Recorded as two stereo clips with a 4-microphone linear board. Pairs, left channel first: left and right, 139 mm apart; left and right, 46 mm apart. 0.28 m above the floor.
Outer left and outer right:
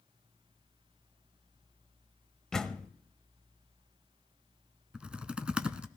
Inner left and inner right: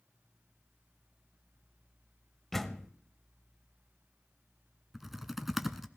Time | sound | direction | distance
2.5 | a door slam | 5° left (ahead or behind) | 0.7 m
4.9 | typing on a keyboard | 5° right (ahead or behind) | 0.7 m